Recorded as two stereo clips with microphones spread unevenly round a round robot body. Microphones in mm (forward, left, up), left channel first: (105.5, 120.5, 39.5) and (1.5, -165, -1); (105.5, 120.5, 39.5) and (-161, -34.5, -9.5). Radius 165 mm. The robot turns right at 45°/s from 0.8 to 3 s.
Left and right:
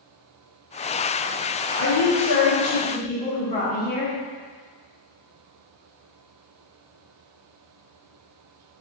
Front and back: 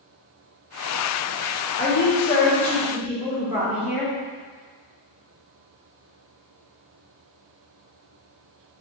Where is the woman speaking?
80° left, 1.4 m; by 4.1 s 135° left, 1.4 m.